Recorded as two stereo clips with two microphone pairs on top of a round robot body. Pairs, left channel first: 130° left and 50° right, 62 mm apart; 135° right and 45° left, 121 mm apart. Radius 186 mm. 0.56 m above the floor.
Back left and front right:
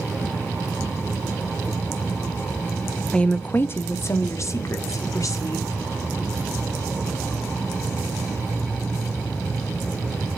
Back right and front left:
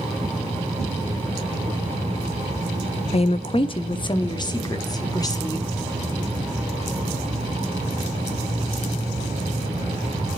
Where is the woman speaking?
150° right, 0.6 m; by 5.7 s 160° left, 2.5 m.